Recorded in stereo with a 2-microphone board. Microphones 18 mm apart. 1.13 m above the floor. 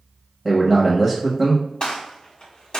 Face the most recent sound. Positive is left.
turn(degrees=50)  # may be behind; listen again after turning